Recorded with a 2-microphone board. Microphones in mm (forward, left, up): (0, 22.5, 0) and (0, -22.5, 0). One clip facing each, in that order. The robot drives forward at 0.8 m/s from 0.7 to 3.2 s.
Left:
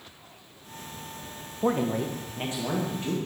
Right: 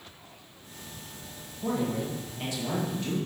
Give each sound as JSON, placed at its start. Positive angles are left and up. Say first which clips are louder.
{"t": 1.6, "sound": "a man speaking", "louder": "left 4 dB", "side_deg": 50, "distance_m": 0.8}